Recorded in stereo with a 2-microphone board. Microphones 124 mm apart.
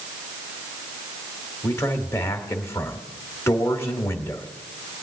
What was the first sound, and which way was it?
A man speaking, 20° left (ahead or behind).